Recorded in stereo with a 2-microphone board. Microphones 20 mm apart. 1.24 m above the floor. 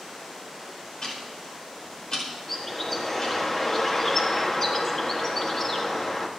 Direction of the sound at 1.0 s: 50° left (ahead or behind).